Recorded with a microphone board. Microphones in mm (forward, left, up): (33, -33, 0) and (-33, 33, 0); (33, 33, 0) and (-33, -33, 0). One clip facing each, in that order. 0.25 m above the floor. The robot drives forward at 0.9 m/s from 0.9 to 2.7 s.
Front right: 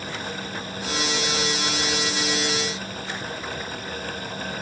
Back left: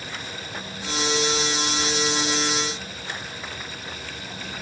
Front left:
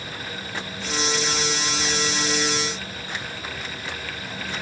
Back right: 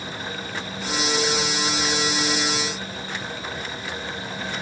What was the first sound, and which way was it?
Only background noise.